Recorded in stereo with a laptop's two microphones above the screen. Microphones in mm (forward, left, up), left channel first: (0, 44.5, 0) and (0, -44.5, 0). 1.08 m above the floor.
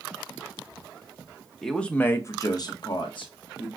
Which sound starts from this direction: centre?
A man speaking, at 1.6 s.